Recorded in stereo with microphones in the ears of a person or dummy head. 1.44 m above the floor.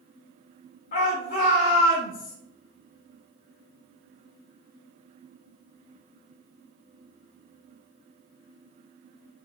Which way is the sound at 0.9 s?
40° left (ahead or behind).